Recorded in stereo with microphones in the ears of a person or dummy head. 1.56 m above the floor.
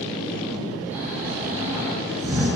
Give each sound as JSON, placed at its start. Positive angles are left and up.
{"t": 0.9, "sound": "snoring", "side_deg": -10, "distance_m": 5.5}